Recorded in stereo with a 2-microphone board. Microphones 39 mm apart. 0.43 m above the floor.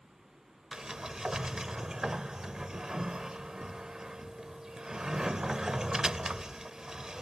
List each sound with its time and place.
0.7 s a sliding door: 15° right (ahead or behind)